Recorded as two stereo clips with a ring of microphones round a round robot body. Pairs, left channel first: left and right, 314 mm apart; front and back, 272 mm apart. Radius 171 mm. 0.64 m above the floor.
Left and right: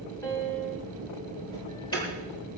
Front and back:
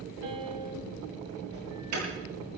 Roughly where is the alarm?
Behind.